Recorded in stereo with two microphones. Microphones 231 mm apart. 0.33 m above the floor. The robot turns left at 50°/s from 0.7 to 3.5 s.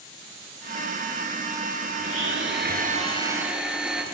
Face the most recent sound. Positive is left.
turn(degrees=-175)